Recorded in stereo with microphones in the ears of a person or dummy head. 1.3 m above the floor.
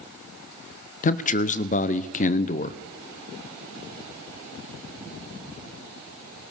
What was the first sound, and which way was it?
A man speaking, 40° left (ahead or behind).